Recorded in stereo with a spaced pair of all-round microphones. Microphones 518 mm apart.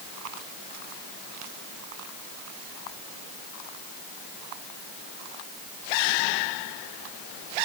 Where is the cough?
I don't hear a cough.